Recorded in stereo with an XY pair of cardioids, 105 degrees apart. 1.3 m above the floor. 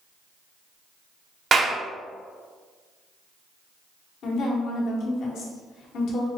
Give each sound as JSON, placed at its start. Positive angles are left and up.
{"t": 1.5, "sound": "a clap", "azimuth_deg": -45, "distance_m": 0.6}
{"t": 4.2, "sound": "a woman speaking", "azimuth_deg": 70, "distance_m": 1.0}